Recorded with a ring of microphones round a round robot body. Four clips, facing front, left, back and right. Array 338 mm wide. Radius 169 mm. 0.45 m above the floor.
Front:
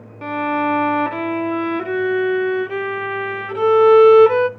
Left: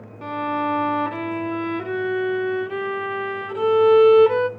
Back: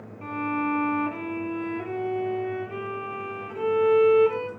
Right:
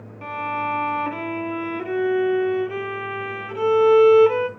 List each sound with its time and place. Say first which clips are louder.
0.2 s a violin: left 2 dB, front 8 dB; 5° left, 0.7 m